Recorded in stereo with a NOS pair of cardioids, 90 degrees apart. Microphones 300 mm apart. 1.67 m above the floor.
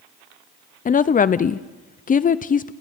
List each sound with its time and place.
0.8 s a woman speaking: 30° left, 0.6 m